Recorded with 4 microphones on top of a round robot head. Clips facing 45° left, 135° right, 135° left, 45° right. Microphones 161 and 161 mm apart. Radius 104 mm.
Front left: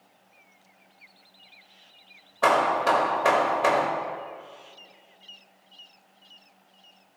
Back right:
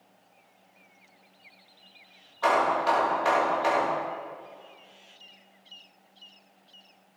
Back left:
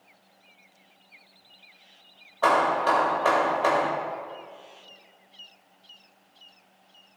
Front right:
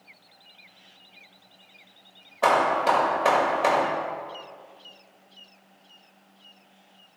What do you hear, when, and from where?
2.4 s hammering: 30° left, 1.7 m